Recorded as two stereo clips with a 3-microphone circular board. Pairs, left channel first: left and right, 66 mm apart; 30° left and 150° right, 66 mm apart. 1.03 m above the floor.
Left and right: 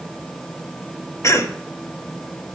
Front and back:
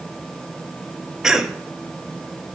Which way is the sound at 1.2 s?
130° left.